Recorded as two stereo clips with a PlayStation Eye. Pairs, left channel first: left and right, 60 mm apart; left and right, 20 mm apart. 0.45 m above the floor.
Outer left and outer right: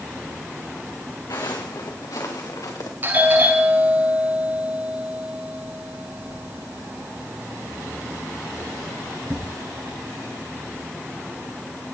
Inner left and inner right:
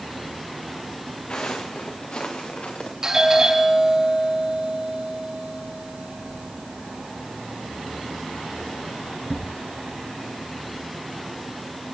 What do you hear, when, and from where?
1.3 s footsteps: 65° left (ahead or behind), 3 m; by 2.9 s 70° left (ahead or behind), 4 m
3.0 s a doorbell: 30° right (ahead or behind), 9 m